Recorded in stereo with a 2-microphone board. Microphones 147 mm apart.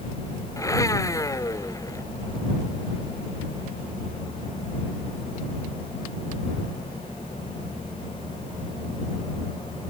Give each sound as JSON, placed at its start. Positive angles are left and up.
{"t": 0.6, "sound": "a blender", "side_deg": 20}